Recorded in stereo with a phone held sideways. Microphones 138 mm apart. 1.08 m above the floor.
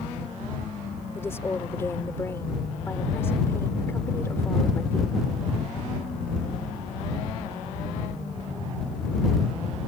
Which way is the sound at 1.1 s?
20° left (ahead or behind).